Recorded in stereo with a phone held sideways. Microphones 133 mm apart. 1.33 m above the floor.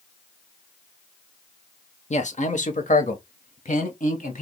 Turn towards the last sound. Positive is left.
turn(degrees=65)  # may be behind; listen again after turning